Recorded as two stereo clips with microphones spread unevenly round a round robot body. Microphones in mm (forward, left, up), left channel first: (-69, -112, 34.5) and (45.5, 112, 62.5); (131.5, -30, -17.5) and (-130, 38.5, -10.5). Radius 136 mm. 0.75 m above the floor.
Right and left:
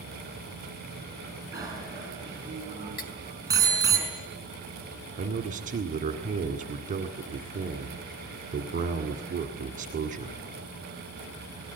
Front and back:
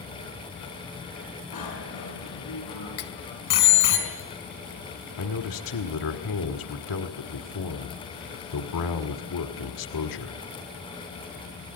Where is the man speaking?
Straight ahead, 1.8 m.